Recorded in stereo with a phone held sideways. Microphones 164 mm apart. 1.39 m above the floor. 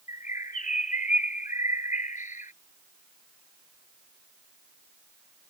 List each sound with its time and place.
0.1 s a bird: 55° left (ahead or behind)